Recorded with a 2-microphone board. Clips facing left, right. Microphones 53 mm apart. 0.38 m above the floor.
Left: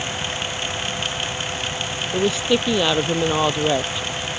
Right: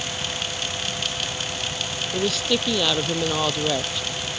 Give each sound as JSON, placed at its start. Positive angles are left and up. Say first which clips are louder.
{"t": 2.1, "sound": "a woman speaking", "louder": "left 4 dB", "side_deg": 20}